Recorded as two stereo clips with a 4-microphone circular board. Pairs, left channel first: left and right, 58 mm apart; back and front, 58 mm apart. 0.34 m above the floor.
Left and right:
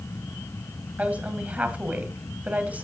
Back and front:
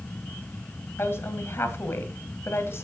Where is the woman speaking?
150° right, 2.0 m.